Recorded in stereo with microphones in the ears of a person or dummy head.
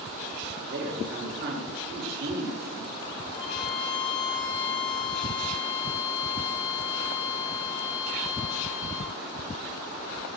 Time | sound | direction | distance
0.7 | a man speaking | 60° right (ahead or behind) | 5 m
3.3 | a violin | 70° left (ahead or behind) | 7 m